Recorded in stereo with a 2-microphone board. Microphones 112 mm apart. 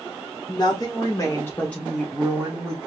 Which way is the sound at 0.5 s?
40° left (ahead or behind).